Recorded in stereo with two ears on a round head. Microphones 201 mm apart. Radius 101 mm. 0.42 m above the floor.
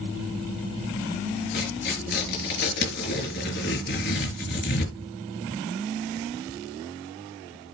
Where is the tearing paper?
45° left (ahead or behind), 5.5 m.